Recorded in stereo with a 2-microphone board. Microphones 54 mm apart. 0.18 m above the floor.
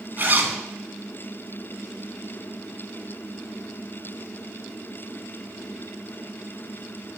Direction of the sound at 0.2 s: 35° right (ahead or behind).